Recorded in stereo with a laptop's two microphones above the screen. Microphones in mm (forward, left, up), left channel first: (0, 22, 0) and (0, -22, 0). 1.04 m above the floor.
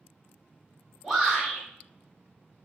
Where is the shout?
10° right (ahead or behind), 1.6 m.